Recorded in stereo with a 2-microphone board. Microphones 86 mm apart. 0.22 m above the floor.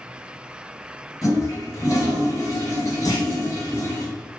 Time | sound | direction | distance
1.2 | a toilet flushing | 45° left (ahead or behind) | 1.9 m
3.0 | a clunk | 45° left (ahead or behind) | 1.6 m